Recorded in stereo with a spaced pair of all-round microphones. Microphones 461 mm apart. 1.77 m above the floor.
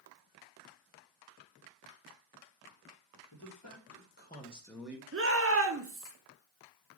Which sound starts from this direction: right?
A shout, at 5.1 s.